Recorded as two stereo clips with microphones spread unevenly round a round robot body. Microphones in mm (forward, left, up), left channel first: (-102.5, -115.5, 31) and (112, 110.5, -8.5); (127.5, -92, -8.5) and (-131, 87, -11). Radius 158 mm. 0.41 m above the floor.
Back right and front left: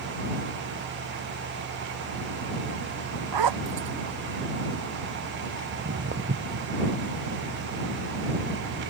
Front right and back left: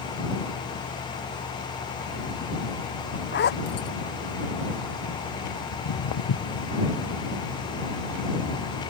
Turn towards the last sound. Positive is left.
turn(degrees=-20)